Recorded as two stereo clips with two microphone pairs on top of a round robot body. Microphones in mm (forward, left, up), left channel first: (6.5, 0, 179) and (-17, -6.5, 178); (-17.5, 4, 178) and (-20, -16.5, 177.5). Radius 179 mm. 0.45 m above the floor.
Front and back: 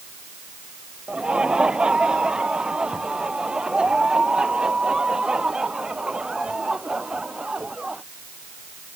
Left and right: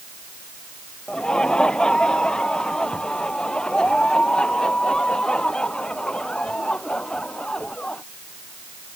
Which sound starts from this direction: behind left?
Laughter, at 1.1 s.